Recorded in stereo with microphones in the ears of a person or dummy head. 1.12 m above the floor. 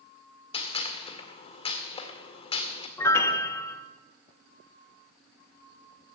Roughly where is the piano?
Centre.